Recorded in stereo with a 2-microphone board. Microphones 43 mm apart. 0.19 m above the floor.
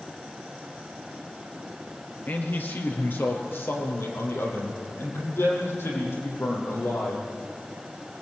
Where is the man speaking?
50° left (ahead or behind), 4 m; by 7.2 s 80° left, 9.5 m.